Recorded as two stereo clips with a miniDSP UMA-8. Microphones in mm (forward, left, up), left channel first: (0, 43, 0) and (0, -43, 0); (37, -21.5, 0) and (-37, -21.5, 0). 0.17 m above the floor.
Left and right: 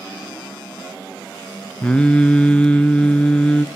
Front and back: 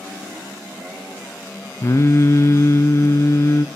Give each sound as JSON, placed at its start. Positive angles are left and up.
{"t": 1.8, "sound": "singing", "azimuth_deg": 20, "distance_m": 0.7}